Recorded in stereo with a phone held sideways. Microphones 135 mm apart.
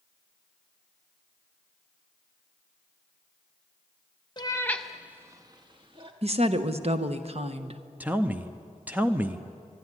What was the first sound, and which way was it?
A cat meowing, 35° left (ahead or behind).